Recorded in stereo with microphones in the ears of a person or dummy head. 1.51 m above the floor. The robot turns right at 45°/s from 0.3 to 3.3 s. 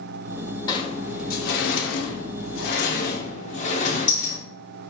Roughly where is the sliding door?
Left.